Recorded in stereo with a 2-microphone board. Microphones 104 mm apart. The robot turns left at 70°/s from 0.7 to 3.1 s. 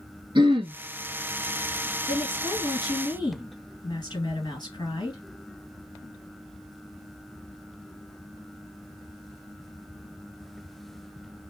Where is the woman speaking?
170° left, 2 m; by 5.2 s 95° left, 2 m.